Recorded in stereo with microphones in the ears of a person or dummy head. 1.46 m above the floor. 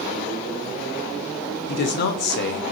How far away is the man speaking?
About 0.6 m.